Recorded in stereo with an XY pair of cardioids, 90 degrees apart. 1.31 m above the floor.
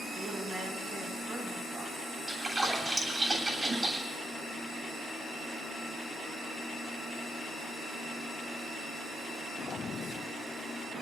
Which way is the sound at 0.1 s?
65° right.